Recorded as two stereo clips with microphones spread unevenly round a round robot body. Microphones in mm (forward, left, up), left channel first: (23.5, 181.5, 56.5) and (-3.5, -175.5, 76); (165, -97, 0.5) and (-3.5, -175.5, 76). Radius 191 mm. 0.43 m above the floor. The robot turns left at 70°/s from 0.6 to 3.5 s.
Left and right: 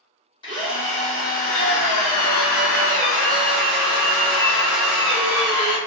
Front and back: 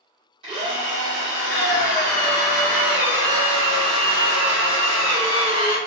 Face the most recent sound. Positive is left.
turn(degrees=-65)